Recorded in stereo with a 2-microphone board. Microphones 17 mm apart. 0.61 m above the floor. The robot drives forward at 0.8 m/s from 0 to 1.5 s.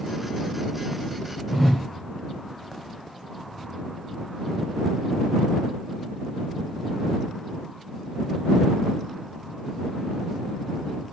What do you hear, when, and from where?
1.5 s a whoosh: 5° left (ahead or behind), 2 m